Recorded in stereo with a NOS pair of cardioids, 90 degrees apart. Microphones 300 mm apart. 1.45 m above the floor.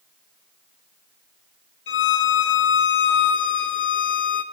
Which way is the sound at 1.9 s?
40° left.